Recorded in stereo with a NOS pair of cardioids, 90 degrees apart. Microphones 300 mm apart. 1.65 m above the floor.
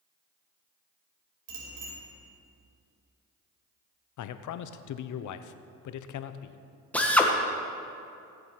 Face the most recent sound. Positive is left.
turn(degrees=5)